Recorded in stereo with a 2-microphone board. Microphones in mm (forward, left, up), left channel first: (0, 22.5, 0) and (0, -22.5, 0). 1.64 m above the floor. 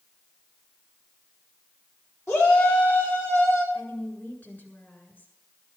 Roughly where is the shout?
Left.